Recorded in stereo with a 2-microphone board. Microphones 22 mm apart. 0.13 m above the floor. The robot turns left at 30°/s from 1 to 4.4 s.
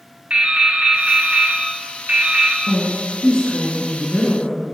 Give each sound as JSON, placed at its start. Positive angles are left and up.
{"t": 0.3, "sound": "dripping", "azimuth_deg": -80, "distance_m": 0.8}
{"t": 2.7, "sound": "a woman speaking", "azimuth_deg": 55, "distance_m": 1.4}